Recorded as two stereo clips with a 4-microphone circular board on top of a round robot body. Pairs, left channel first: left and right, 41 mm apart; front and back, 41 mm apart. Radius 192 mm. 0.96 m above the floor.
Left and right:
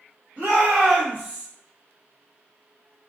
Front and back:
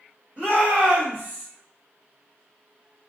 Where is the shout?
130° right, 1.7 m; by 1.5 s 140° right, 1.1 m.